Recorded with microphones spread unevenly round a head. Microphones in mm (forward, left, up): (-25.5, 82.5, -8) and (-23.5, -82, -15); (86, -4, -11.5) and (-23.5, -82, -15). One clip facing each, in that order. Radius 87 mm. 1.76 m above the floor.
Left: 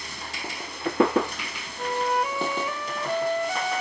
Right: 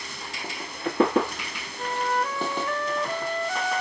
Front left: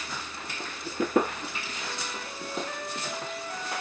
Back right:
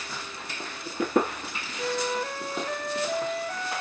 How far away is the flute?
About 1.0 m.